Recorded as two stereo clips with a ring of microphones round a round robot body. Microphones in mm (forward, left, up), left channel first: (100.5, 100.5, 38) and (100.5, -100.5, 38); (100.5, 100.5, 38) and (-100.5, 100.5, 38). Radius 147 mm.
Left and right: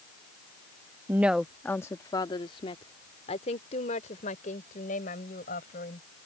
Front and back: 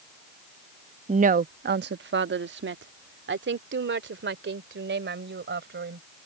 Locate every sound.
1.1 s a woman speaking: 160° right; by 6.0 s 150° left